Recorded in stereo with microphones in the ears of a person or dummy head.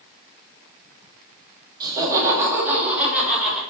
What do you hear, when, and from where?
1.8 s laughter: 15° right (ahead or behind), 3 m; by 3.6 s 5° left (ahead or behind), 3.5 m